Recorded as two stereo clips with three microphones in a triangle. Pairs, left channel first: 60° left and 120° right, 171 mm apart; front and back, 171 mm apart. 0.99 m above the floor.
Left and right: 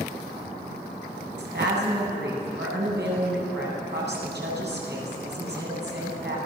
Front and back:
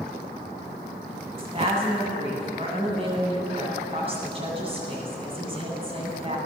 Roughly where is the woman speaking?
Behind right.